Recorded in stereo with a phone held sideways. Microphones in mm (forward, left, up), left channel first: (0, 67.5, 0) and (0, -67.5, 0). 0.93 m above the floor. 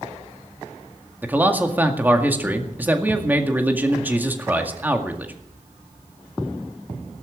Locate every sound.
1.2 s a man speaking: 15° right (ahead or behind), 2.0 m